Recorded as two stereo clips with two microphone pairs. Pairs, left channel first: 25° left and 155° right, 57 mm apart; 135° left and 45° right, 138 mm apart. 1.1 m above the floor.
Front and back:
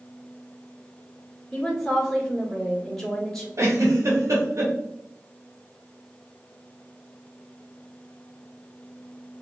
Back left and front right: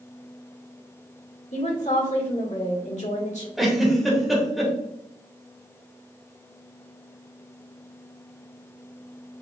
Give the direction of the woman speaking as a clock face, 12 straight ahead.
8 o'clock.